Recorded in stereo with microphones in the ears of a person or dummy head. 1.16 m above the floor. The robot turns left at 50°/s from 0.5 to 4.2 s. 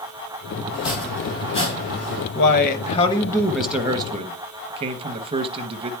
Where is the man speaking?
65° left, 0.9 m; by 5.9 s 30° right, 0.9 m.